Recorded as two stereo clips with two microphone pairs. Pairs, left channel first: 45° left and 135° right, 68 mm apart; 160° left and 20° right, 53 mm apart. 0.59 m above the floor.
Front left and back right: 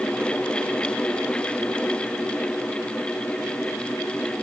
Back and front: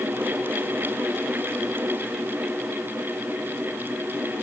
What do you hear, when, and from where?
Only background noise.